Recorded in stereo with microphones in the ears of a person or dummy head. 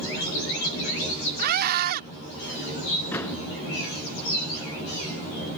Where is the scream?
55° right (ahead or behind).